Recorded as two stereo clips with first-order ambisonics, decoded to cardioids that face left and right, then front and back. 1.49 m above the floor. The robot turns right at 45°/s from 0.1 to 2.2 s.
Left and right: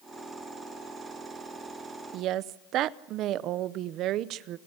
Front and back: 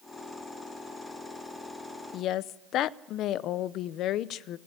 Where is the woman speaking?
50° right, 0.6 m; by 4.6 s 45° right, 0.6 m.